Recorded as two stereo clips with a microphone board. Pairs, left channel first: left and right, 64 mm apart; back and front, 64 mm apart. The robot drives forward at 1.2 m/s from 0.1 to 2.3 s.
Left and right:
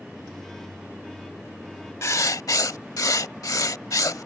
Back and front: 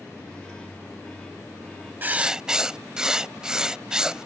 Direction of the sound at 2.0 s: 55° left.